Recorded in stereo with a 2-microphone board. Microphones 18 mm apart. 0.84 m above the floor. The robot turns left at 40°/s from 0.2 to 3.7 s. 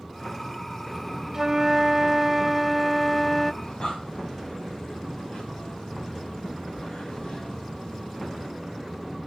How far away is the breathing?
About 5 m.